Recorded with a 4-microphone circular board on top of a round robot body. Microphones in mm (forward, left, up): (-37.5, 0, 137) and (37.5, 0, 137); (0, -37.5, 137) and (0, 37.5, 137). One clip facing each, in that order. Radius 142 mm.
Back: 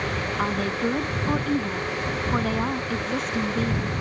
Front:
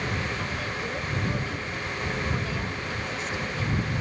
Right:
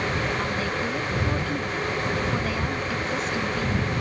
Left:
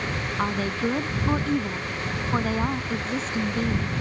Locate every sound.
0.4 s a woman speaking: 140° left